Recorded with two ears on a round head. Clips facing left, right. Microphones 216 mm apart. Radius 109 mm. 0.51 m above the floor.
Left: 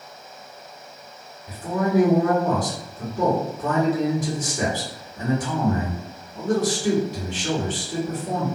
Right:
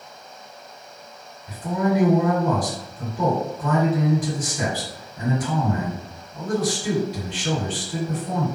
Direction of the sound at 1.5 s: 35° left (ahead or behind).